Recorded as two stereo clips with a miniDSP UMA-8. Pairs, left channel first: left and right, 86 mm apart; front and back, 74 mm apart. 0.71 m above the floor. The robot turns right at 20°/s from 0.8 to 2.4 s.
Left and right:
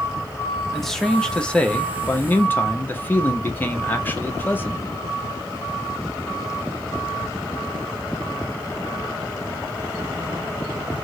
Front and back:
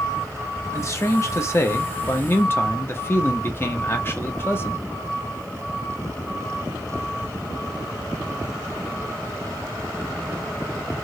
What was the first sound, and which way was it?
A man speaking, 5° left.